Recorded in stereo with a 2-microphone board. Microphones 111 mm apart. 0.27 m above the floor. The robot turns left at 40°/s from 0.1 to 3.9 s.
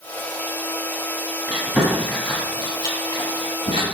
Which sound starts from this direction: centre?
Chewing, at 1.5 s.